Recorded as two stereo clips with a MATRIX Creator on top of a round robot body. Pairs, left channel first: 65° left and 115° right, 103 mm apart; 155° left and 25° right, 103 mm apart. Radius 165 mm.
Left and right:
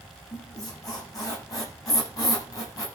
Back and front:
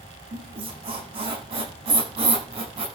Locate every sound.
0.3 s a squeak: 10° left, 9.5 m